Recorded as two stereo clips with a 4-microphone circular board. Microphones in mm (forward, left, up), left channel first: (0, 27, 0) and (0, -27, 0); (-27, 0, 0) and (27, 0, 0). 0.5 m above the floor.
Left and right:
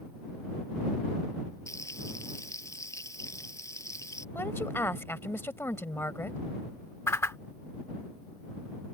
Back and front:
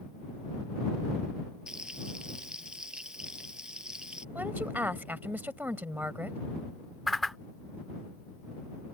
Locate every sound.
1.7 s frying: 75° left
4.3 s a woman speaking: 50° left
7.1 s a whoosh: 90° left